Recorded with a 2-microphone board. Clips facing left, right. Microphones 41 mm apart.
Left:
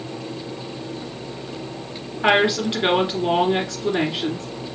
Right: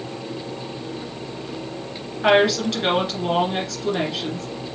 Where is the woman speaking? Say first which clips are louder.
Right 1 dB; 20° left (ahead or behind), 2 m.